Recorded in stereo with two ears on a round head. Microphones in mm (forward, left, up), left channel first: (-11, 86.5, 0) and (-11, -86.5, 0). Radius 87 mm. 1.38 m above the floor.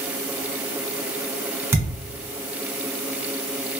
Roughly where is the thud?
Centre.